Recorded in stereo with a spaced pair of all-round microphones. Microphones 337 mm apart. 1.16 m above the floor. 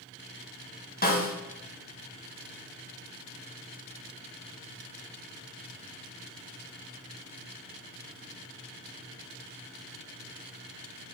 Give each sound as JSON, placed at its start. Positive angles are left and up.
{"t": 1.0, "sound": "a snare drum", "side_deg": 25, "distance_m": 1.6}